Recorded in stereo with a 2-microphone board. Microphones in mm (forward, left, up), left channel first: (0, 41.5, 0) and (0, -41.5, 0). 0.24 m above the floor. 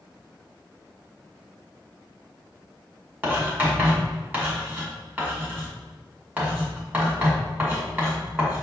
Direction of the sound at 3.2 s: 25° right (ahead or behind).